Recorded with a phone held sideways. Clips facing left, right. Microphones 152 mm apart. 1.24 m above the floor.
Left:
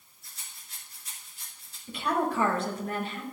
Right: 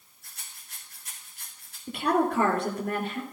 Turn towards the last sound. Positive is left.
turn(degrees=-65)  # may be behind; listen again after turning